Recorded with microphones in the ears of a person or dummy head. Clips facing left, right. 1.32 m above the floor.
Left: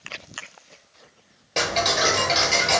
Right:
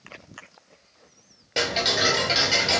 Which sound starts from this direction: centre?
Ticking, at 1.6 s.